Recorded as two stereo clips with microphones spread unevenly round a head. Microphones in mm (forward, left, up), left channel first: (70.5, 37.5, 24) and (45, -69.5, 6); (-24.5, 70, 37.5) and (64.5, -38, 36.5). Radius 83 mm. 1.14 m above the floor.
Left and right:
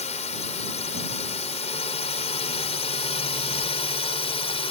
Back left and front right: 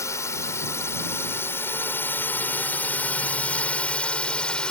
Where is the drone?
60° left; by 4.7 s 45° left.